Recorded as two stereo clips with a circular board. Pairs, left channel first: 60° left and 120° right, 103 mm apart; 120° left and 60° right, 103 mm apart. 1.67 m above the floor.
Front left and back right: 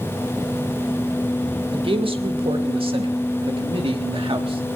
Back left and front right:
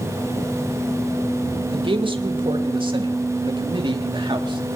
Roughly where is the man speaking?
Right.